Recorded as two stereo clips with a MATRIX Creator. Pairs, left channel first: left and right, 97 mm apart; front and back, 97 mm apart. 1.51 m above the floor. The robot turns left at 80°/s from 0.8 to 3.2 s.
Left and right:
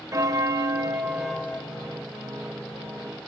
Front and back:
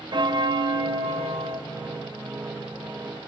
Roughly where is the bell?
Behind right.